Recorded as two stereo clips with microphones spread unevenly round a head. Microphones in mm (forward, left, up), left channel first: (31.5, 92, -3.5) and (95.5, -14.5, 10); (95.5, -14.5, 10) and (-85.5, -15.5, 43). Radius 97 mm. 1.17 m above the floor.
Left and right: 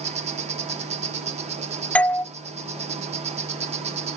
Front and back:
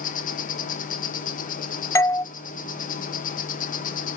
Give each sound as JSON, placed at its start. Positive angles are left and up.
{"t": 0.0, "sound": "an insect", "azimuth_deg": -30, "distance_m": 2.5}
{"t": 1.9, "sound": "a doorbell", "azimuth_deg": 55, "distance_m": 0.5}